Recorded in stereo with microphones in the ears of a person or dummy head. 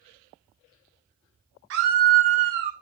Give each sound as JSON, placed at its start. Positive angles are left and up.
{"t": 1.7, "sound": "a scream", "side_deg": -55, "distance_m": 1.0}